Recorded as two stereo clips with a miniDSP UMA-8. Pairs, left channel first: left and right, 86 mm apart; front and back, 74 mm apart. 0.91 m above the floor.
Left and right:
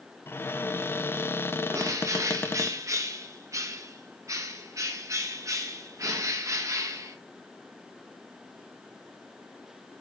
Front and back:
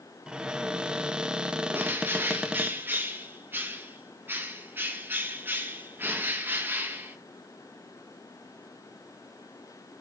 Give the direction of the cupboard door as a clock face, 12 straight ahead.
8 o'clock.